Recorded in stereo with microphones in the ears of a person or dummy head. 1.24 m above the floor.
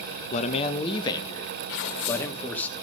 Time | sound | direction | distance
0.3 | a man speaking | 35° left (ahead or behind) | 0.6 m
1.7 | tearing paper | 55° left (ahead or behind) | 1.5 m